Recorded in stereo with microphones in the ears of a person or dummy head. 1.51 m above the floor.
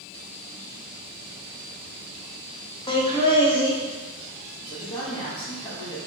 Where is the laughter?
25° left (ahead or behind), 0.5 m.